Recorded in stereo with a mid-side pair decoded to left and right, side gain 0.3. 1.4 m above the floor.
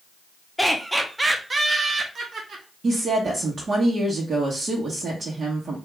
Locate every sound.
0.6 s laughter: straight ahead, 1.1 m; by 2.6 s 70° right, 1.2 m
2.8 s a woman speaking: 60° right, 1.4 m